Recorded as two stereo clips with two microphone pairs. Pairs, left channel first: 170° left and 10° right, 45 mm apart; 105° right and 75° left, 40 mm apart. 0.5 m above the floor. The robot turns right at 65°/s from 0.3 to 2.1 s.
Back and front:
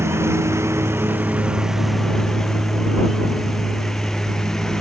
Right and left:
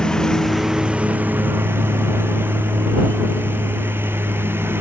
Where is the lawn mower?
25° right; by 4.8 s 90° left.